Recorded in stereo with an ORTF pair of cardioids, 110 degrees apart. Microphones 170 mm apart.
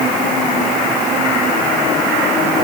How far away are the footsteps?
I don't hear footsteps.